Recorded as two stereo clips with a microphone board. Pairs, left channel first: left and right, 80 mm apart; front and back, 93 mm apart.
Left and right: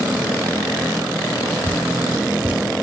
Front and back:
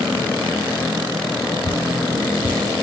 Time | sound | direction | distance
1.6 | dripping | 20° right | 0.9 m